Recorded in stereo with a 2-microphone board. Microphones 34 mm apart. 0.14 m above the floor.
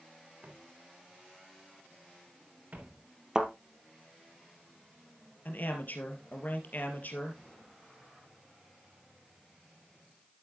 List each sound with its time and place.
0.4 s footsteps: 50° right (ahead or behind), 3.5 m; by 3.0 s 55° right (ahead or behind), 5 m
3.4 s a thud: 20° right (ahead or behind), 1.5 m
5.5 s a man speaking: 55° left (ahead or behind), 3 m